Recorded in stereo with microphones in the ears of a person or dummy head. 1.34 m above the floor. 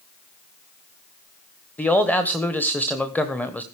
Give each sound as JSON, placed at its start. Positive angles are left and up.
{"t": 1.8, "sound": "a man speaking", "side_deg": -5, "distance_m": 1.0}